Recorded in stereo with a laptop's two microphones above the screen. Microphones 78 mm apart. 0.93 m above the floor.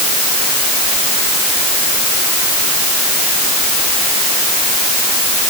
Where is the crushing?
I don't hear crushing.